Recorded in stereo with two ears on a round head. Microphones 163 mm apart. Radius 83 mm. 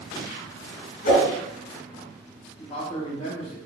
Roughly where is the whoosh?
Left.